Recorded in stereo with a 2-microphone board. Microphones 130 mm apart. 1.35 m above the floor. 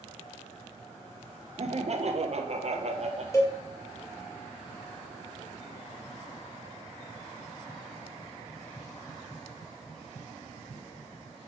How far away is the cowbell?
About 1.7 m.